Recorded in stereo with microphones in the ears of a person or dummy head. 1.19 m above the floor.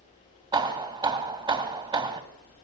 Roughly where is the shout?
No shout in this recording.